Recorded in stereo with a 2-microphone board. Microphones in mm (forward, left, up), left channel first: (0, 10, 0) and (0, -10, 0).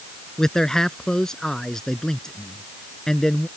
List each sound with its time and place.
0.4 s a man speaking: 25° left (ahead or behind)